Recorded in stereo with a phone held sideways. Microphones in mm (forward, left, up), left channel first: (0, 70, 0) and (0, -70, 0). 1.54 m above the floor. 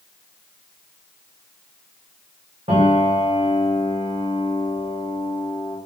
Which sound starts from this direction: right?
A piano, at 2.7 s.